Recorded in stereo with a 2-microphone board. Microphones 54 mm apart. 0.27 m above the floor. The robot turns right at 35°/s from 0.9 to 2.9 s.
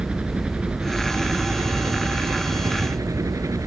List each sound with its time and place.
0.0 s a helicopter: 20° right (ahead or behind); by 3.7 s 70° right (ahead or behind)